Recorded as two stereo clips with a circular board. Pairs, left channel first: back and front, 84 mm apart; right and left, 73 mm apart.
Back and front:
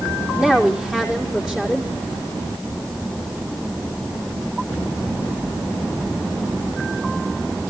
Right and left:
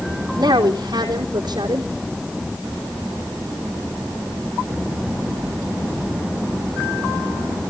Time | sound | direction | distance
0.4 | a woman speaking | 85° left | 3.5 m